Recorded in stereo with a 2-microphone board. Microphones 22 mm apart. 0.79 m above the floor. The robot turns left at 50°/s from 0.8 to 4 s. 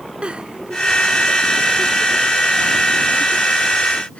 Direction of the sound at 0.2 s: 60° right (ahead or behind).